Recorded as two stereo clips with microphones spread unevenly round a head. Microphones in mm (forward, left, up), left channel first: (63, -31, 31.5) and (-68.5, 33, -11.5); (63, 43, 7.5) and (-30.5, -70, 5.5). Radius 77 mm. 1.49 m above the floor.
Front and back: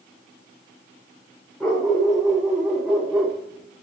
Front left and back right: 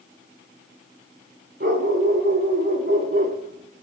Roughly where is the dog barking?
Right.